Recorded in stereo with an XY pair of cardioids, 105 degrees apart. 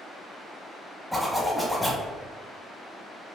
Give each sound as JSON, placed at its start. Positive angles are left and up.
{"t": 1.1, "sound": "a zipper", "azimuth_deg": 0, "distance_m": 1.1}